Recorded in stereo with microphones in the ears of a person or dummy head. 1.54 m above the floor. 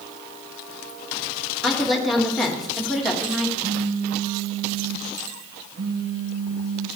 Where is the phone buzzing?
75° right (ahead or behind), 4 m.